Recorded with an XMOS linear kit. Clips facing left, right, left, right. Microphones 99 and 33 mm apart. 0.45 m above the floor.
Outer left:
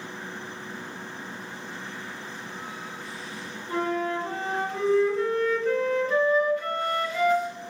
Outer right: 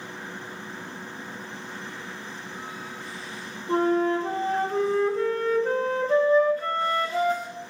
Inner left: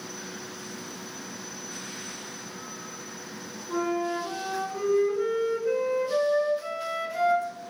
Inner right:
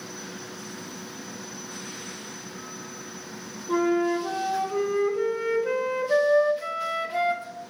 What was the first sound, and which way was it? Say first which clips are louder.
A flute: outer right 5 dB, inner right 5 dB; 35° right (ahead or behind).